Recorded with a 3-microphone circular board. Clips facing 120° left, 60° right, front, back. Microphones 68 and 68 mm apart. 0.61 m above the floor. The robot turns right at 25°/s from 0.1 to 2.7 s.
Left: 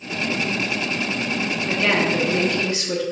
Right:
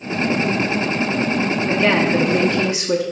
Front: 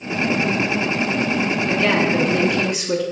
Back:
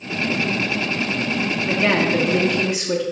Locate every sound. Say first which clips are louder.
1.7 s a woman speaking: right 3 dB, back 1 dB; 125° right, 0.8 m; by 3.0 s 100° right, 0.8 m